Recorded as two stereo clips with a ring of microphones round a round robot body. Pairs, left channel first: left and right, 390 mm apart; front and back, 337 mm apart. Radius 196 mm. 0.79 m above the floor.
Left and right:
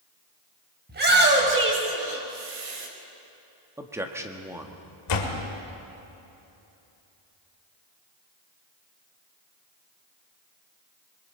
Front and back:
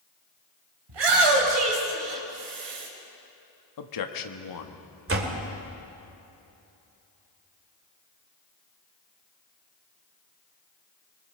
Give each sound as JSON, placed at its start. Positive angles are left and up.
{"t": 0.9, "sound": "a shout", "azimuth_deg": -155, "distance_m": 5.0}
{"t": 3.8, "sound": "a man speaking", "azimuth_deg": -5, "distance_m": 1.4}
{"t": 5.1, "sound": "a door slam", "azimuth_deg": 130, "distance_m": 2.5}